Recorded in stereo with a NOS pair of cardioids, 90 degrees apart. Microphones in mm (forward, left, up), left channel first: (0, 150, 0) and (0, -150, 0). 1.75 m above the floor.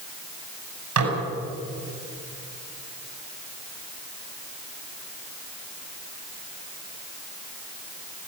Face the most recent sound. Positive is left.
turn(degrees=-70)